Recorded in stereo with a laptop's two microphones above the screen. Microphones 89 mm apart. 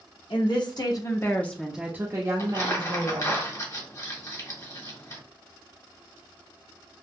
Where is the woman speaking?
60° left (ahead or behind), 1.1 m; by 3.4 s 65° right (ahead or behind), 1.4 m.